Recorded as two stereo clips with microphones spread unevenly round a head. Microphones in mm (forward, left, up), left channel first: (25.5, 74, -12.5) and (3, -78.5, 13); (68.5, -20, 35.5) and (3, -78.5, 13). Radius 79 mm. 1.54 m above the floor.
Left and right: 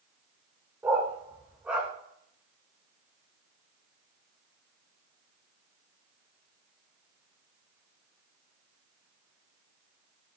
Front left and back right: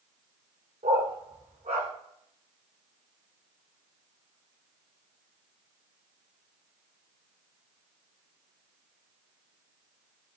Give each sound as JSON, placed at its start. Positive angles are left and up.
{"t": 0.8, "sound": "a dog barking", "azimuth_deg": -170, "distance_m": 2.0}